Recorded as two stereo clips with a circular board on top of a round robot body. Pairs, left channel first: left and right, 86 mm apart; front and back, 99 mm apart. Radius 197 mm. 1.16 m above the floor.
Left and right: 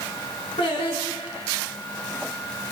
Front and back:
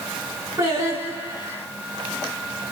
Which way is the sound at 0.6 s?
115° left.